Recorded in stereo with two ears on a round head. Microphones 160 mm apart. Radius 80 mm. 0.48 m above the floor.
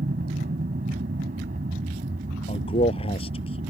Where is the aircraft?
45° right (ahead or behind); by 3.7 s 40° right (ahead or behind).